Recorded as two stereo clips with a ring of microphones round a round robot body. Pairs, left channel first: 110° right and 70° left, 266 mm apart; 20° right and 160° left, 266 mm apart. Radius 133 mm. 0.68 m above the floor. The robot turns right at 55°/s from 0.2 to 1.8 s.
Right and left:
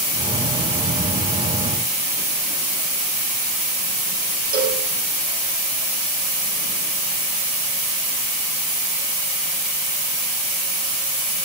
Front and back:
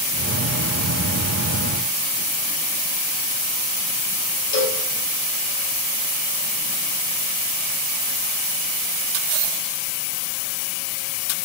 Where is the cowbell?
15° left, 1.2 m.